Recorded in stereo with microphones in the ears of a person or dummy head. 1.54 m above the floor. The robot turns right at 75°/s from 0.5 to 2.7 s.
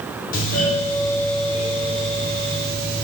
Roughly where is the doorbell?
Behind left.